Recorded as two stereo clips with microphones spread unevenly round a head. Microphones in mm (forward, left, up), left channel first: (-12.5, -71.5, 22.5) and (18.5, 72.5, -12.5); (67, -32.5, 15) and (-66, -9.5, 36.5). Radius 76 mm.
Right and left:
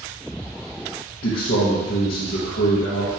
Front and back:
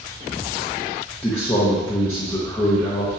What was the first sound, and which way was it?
A man speaking, 80° right.